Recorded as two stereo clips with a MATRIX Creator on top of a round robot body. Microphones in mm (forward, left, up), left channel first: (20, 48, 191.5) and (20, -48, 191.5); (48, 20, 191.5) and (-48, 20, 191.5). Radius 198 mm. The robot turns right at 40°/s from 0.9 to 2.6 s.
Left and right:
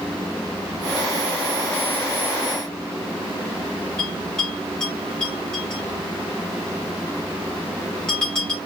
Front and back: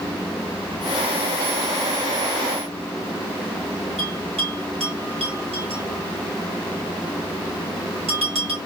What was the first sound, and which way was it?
A bell, 170° left.